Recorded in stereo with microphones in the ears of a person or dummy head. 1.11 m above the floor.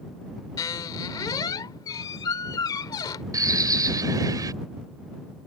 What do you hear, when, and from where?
0.6 s a squeak: 20° left (ahead or behind)
3.3 s a bird: 15° right (ahead or behind)